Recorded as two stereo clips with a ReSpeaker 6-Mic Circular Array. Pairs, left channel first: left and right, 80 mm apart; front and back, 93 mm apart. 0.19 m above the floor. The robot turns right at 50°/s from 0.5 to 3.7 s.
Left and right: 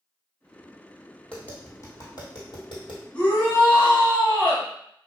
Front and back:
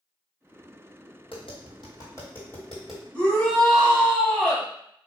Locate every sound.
1.3 s tapping: 10° left, 1.3 m; by 3.0 s 95° left, 1.3 m
3.1 s a shout: 45° left, 1.0 m; by 4.7 s 75° left, 1.0 m